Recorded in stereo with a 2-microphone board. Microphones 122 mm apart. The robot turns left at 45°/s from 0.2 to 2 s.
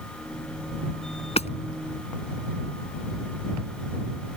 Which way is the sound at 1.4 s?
65° left (ahead or behind).